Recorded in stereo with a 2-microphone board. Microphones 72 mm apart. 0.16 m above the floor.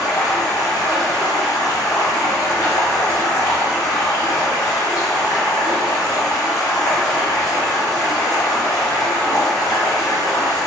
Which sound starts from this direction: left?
Running water, at 0.0 s.